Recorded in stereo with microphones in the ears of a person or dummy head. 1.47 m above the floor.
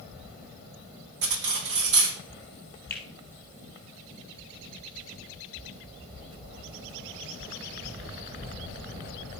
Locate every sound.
1.2 s cutlery clinking: 65° right (ahead or behind), 1.5 m
2.9 s a finger snap: 10° left (ahead or behind), 2.5 m